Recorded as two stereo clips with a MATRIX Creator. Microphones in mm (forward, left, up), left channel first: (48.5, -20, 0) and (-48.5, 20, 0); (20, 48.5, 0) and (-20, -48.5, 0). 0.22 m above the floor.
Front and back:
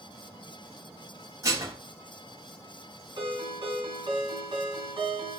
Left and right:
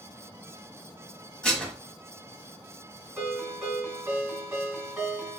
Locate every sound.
1.4 s dishes clattering: 145° left, 0.8 m
3.2 s a ringtone: 170° left, 1.5 m